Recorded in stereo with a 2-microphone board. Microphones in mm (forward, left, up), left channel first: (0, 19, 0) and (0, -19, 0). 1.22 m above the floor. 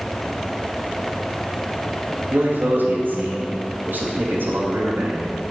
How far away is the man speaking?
About 2.5 m.